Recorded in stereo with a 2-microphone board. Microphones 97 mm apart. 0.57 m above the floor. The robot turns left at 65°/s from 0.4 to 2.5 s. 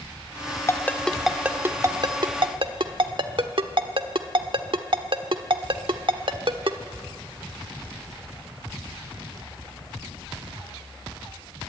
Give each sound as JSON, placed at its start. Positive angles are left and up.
{"t": 0.7, "sound": "a ringtone", "side_deg": 30, "distance_m": 1.2}